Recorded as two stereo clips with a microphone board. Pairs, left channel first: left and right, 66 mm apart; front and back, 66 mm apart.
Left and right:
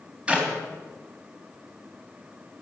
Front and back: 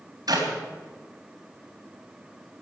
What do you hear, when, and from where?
0.3 s a clap: 160° right, 3.5 m